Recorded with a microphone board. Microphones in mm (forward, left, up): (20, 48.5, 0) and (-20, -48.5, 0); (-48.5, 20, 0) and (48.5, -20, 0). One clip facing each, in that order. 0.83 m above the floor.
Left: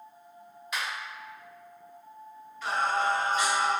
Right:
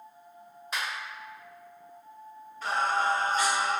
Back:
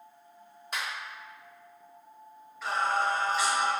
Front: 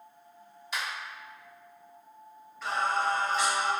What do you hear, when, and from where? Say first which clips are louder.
0.7 s a finger snap: even, even; 165° right, 1.4 m
2.6 s singing: even, back 1 dB; 115° right, 1.2 m